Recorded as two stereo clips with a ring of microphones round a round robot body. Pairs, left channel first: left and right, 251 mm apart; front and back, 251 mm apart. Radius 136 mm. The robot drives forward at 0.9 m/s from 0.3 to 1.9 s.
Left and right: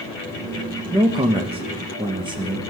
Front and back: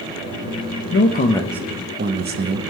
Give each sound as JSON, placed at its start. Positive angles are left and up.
{"t": 0.9, "sound": "a man speaking", "azimuth_deg": -20, "distance_m": 0.7}